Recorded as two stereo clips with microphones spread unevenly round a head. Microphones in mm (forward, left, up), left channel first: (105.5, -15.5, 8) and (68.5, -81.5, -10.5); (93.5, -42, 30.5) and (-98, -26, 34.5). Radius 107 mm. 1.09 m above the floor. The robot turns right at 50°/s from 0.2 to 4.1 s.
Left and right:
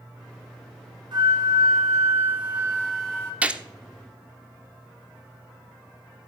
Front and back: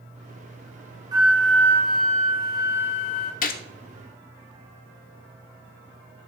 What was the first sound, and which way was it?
A flute, 115° right.